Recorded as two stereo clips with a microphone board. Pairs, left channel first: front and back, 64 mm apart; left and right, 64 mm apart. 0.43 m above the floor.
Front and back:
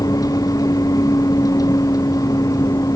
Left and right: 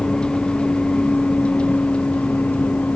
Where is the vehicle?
15° left; by 3.0 s 20° left.